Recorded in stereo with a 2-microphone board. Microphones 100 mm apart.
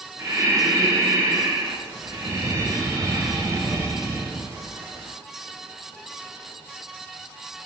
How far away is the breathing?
About 4 m.